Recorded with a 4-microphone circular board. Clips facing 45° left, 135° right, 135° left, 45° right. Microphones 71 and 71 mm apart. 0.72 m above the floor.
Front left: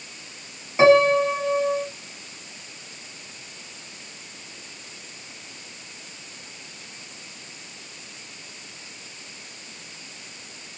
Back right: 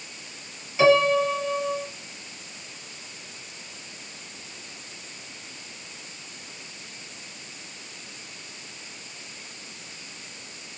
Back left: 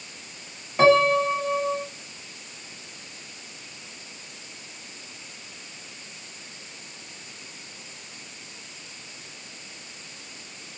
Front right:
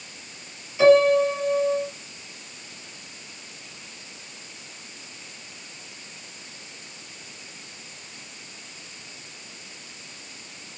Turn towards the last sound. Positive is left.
turn(degrees=100)